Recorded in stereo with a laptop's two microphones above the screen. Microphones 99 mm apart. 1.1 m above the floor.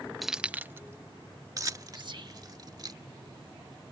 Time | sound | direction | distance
0.2 | keys jangling | centre (ahead or behind) | ?
1.9 | whispering | 50° right (ahead or behind) | ?